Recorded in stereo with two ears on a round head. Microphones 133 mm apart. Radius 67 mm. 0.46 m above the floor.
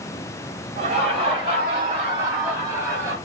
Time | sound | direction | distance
0.8 | laughter | 40° right (ahead or behind) | 3.5 m